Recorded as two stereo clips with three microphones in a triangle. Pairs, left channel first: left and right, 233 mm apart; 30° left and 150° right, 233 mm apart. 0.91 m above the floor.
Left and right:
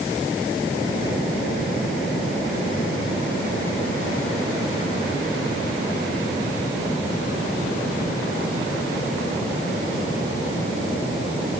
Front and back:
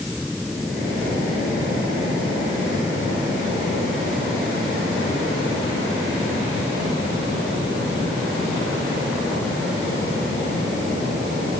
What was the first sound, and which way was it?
Only background noise.